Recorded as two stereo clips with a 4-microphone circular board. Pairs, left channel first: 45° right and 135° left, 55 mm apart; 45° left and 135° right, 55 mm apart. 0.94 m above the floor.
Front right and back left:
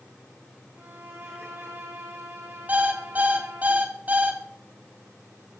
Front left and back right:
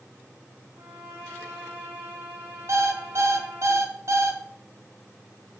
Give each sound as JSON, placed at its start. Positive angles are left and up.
{"t": 0.8, "sound": "a violin", "azimuth_deg": 175, "distance_m": 4.0}
{"t": 2.7, "sound": "an alarm clock", "azimuth_deg": -165, "distance_m": 1.3}